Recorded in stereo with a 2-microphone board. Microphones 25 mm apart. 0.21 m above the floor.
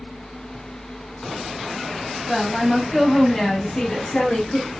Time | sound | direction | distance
2.3 | a woman speaking | 10° right (ahead or behind) | 1.4 m